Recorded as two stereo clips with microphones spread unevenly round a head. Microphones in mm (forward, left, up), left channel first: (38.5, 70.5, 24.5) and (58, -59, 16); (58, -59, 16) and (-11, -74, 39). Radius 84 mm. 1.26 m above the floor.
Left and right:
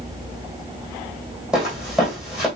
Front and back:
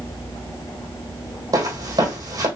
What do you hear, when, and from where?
1.5 s footsteps: 170° right, 3 m